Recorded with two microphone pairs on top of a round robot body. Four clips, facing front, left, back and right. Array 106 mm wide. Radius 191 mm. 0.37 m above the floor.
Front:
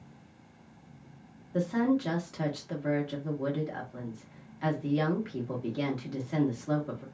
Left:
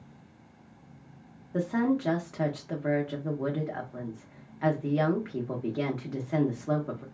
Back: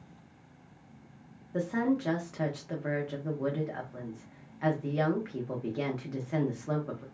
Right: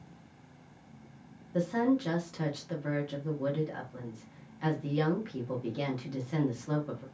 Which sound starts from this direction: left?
A woman speaking, at 1.5 s.